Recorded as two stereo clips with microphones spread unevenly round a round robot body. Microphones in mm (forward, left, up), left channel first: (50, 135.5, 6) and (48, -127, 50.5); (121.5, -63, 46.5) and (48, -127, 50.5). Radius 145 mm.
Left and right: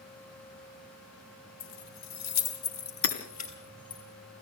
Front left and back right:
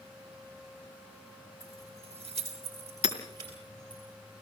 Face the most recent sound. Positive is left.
turn(degrees=50)